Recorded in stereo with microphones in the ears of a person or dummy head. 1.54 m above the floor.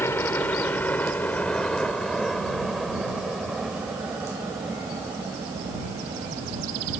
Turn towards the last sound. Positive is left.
turn(degrees=-15)  # may be behind; listen again after turning